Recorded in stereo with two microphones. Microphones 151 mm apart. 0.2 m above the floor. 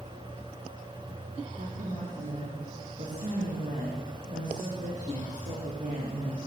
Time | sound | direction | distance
1.6 | a woman speaking | 55° right (ahead or behind) | 9 m